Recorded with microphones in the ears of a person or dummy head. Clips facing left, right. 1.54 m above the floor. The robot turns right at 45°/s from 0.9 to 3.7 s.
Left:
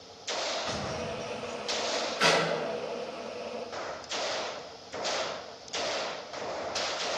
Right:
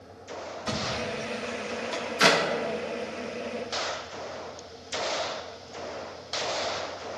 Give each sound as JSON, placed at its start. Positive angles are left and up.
{"t": 0.6, "sound": "a thud", "side_deg": -55, "distance_m": 2.5}
{"t": 2.2, "sound": "a clap", "side_deg": -70, "distance_m": 1.4}